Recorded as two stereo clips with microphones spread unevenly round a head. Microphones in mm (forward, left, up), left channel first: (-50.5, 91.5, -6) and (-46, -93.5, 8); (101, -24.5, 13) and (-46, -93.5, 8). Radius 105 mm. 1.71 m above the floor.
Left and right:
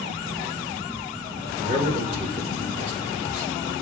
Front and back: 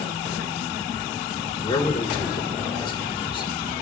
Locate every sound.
1.6 s a man speaking: 35° right, 1.7 m